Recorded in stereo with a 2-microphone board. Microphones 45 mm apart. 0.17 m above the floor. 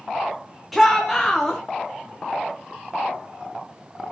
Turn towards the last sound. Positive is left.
turn(degrees=0)  # may be behind; listen again after turning